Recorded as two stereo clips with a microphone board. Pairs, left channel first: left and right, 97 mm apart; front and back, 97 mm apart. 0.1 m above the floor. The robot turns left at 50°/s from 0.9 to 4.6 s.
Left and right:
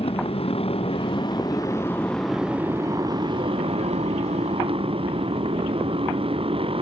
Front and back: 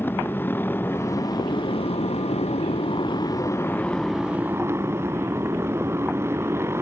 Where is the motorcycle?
70° left; by 6.8 s 115° right.